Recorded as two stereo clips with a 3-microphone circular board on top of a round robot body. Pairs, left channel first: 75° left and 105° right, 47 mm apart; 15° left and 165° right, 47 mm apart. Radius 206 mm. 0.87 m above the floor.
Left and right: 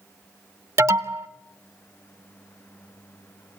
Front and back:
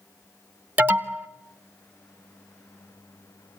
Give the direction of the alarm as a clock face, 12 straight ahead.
4 o'clock.